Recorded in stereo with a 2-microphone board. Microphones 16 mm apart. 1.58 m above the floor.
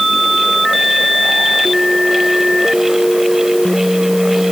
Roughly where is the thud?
No thud in this recording.